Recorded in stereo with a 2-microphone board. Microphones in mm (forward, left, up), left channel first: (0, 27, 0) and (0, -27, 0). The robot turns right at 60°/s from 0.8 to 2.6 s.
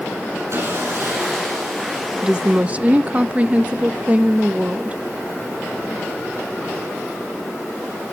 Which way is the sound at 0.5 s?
125° right.